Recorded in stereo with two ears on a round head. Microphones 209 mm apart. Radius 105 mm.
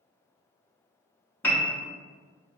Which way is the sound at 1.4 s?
10° left (ahead or behind).